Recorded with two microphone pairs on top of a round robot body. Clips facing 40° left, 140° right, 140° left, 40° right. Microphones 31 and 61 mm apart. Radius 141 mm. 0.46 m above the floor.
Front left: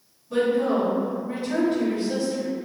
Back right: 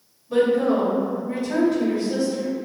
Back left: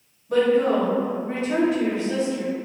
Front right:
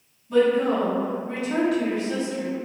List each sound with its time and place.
0.3 s a woman speaking: 140° left, 1.7 m; by 2.5 s 65° left, 1.9 m